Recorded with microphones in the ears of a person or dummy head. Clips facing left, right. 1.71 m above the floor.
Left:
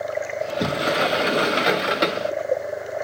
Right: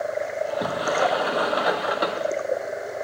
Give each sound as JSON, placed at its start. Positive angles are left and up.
{"t": 0.4, "sound": "a sliding door", "side_deg": 40, "distance_m": 0.8}